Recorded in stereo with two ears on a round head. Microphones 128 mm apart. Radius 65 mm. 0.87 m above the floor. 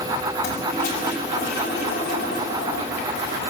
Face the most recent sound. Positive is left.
turn(degrees=70)  # may be behind; listen again after turning